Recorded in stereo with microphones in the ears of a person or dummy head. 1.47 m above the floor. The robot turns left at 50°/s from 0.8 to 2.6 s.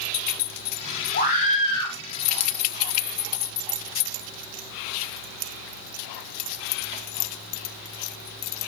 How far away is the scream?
About 7.5 m.